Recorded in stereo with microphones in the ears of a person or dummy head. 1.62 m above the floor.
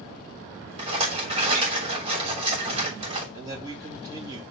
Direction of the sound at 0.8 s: 30° right (ahead or behind).